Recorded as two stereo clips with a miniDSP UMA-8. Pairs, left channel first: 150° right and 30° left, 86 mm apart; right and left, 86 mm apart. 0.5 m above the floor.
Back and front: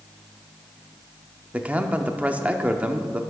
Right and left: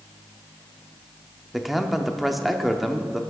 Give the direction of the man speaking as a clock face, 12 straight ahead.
12 o'clock.